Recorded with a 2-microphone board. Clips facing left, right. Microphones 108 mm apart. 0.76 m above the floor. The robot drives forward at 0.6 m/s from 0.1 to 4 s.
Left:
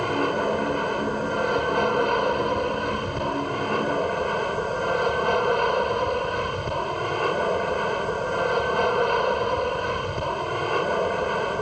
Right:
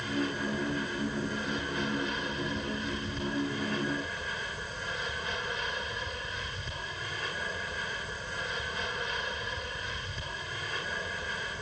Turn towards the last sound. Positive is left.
turn(degrees=60)  # may be behind; listen again after turning